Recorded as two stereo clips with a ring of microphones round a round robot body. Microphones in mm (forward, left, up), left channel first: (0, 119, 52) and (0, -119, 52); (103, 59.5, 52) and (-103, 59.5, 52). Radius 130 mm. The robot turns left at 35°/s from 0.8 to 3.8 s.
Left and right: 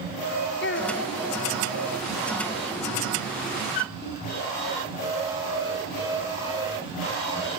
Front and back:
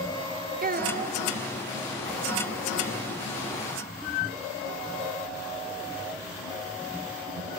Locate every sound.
0.6 s a child speaking: 135° left, 1.9 m; by 1.2 s 120° left, 1.9 m